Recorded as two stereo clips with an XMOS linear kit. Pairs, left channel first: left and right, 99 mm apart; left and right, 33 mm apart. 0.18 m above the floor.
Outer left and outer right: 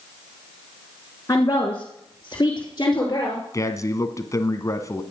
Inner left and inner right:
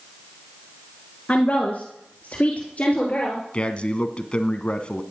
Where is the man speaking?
35° left (ahead or behind), 1.5 m.